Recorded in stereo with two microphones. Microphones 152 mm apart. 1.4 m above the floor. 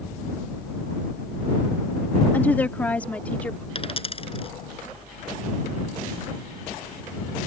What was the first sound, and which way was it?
A woman speaking, 10° left (ahead or behind).